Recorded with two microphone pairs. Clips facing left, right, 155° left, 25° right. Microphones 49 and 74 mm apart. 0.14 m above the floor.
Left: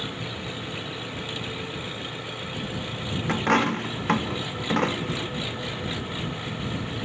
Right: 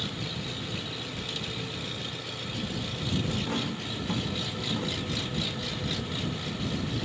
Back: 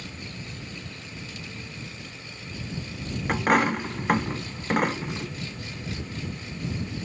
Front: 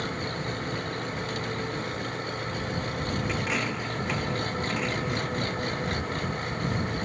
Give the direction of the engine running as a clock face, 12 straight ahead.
11 o'clock.